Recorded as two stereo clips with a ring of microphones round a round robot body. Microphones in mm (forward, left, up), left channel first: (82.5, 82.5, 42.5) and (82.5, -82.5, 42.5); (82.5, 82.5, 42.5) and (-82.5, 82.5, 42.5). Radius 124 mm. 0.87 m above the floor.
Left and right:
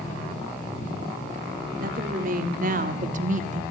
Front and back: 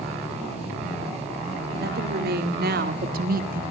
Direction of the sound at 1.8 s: 140° right.